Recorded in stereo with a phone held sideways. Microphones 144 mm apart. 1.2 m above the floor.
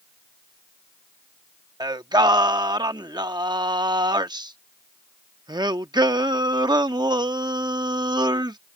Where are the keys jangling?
No keys jangling in this recording.